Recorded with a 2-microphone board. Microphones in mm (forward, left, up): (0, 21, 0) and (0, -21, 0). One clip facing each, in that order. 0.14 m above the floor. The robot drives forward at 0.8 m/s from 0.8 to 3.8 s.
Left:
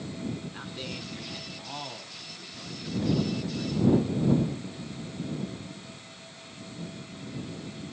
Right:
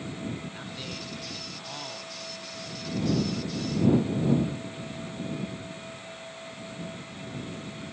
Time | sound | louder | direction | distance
0.5 | a man speaking | even | 5° left (ahead or behind) | 1.5 m